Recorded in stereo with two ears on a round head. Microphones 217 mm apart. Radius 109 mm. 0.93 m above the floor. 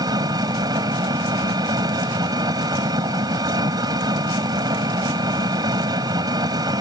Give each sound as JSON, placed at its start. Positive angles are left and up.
{"t": 0.0, "sound": "an engine running", "side_deg": -15}